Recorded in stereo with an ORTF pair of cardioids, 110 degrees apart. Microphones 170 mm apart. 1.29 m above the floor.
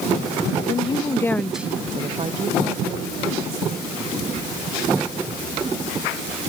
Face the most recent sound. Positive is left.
turn(degrees=-75)